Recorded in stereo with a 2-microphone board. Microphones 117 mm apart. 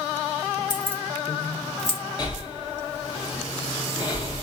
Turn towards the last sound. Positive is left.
turn(degrees=35)  # may be behind; listen again after turning